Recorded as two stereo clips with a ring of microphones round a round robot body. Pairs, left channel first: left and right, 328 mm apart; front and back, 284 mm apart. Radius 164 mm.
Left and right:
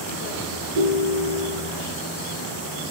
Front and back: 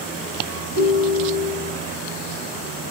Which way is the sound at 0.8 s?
135° right.